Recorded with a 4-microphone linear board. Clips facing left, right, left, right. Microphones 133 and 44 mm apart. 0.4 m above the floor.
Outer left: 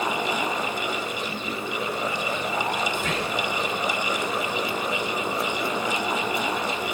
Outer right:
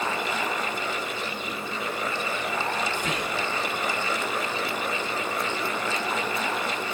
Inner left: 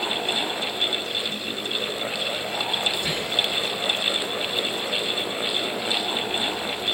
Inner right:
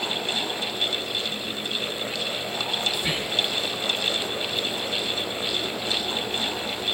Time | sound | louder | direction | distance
2.9 | whispering | outer left 2 dB, inner left 1 dB | 15° right (ahead or behind) | 0.8 m